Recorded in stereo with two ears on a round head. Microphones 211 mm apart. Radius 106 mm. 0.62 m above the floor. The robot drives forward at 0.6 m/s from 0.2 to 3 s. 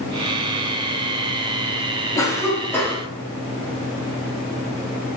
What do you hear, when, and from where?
2.1 s a cough: 15° left (ahead or behind), 0.7 m; by 3.0 s 10° left (ahead or behind), 1.0 m